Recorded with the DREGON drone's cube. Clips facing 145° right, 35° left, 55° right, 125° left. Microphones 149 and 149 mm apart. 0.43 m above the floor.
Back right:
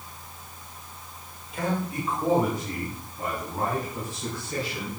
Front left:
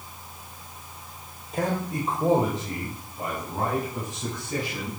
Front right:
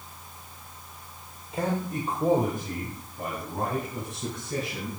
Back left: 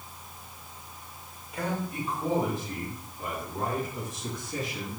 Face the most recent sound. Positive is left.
turn(degrees=-40)